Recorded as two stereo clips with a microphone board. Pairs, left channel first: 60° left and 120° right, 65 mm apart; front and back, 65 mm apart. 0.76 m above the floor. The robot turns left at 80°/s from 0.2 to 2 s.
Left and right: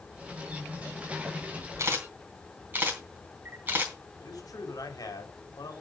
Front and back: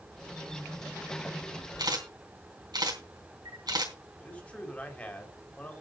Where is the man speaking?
70° left, 2.5 m.